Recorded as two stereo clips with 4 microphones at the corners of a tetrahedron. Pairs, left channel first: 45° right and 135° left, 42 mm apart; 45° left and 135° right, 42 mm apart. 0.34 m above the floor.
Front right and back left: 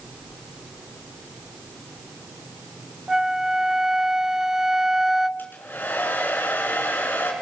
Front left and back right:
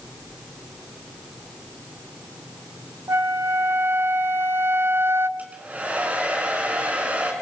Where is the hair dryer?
85° right, 4.5 m.